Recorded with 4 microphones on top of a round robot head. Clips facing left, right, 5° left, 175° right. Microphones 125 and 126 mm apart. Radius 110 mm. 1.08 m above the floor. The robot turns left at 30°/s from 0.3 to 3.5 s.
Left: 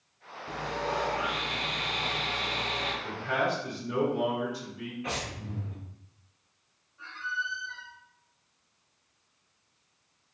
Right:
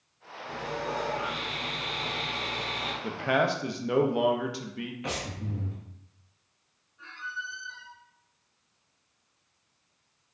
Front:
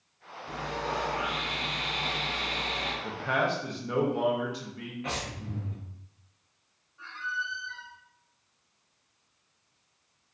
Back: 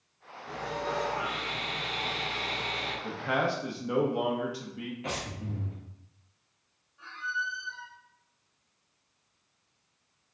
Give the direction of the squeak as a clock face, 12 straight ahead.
8 o'clock.